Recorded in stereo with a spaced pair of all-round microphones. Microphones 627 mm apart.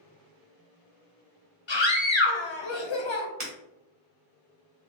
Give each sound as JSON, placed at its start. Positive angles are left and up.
{"t": 1.7, "sound": "a scream", "side_deg": 45, "distance_m": 0.9}
{"t": 3.4, "sound": "breaking glass", "side_deg": -50, "distance_m": 1.4}